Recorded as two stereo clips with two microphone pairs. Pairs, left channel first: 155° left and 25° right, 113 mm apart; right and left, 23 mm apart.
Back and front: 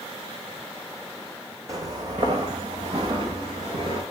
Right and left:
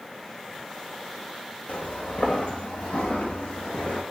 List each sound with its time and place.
1.7 s footsteps: 80° right, 1.3 m; by 4.0 s 70° right, 3.5 m